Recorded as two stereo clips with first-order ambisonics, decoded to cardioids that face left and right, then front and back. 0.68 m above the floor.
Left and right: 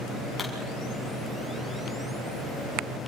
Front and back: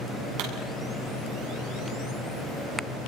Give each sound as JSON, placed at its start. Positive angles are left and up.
{"t": 0.4, "sound": "a pop", "azimuth_deg": 175, "distance_m": 7.0}